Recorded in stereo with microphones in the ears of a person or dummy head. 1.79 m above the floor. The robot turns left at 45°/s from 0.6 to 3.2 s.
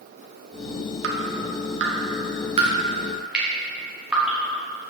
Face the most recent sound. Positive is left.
turn(degrees=-5)  # may be behind; listen again after turning